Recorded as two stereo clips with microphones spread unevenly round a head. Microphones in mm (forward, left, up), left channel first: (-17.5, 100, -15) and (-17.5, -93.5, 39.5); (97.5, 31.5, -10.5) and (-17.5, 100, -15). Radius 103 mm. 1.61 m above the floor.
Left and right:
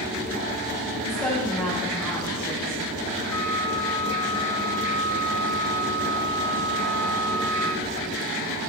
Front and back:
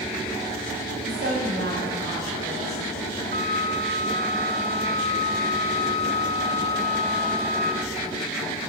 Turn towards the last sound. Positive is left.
turn(degrees=10)